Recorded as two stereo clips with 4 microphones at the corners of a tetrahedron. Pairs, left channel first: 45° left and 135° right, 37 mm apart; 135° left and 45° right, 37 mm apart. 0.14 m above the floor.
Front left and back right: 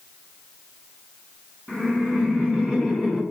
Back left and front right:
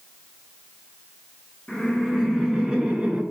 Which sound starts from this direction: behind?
Laughter, at 1.7 s.